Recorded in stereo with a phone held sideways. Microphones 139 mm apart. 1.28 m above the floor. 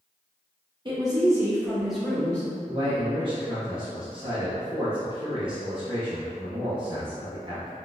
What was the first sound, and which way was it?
A woman speaking, 35° right (ahead or behind).